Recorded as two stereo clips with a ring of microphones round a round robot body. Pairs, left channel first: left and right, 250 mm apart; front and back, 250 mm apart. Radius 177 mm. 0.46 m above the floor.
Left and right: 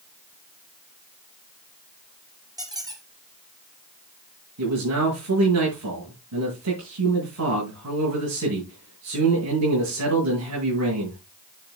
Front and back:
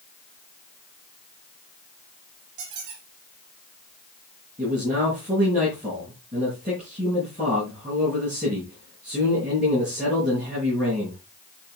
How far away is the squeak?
About 4.5 m.